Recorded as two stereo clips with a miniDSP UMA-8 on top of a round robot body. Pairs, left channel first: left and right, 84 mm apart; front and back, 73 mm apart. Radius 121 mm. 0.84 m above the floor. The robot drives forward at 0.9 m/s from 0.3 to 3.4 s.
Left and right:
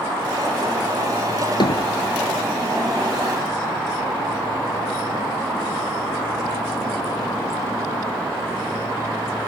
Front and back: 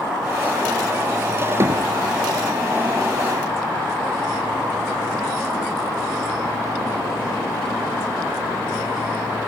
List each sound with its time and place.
1.6 s hammering: 125° left